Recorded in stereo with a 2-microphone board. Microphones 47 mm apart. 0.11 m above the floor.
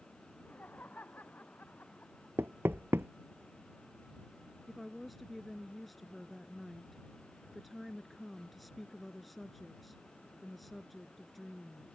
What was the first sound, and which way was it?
Laughter, 35° left (ahead or behind).